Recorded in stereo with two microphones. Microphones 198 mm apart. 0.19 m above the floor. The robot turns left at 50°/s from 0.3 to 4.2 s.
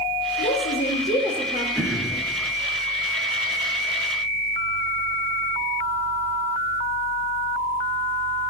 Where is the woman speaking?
95° left, 5.5 m; by 1.6 s 35° left, 5.5 m.